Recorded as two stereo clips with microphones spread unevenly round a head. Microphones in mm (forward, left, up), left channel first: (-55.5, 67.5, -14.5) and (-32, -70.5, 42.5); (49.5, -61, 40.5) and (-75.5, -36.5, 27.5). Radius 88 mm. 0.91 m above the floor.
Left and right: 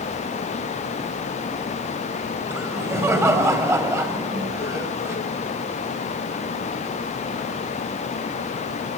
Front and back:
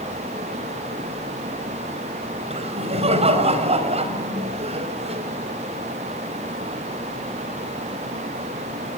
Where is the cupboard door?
I don't hear a cupboard door.